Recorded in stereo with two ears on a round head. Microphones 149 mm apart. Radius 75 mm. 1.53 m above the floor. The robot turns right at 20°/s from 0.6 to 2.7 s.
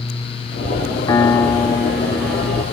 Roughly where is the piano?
Behind.